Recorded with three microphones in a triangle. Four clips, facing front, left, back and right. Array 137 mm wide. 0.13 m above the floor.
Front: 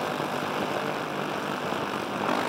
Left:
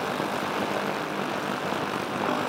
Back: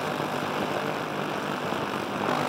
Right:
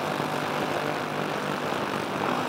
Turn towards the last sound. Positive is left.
No sound to turn to.